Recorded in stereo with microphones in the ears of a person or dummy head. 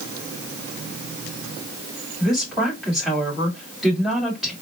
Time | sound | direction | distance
2.2 | a woman speaking | 5° right (ahead or behind) | 3 m